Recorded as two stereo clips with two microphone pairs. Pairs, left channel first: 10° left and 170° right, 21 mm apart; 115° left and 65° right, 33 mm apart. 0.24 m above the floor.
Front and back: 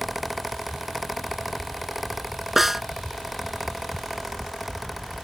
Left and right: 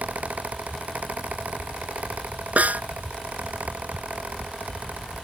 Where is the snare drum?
95° right.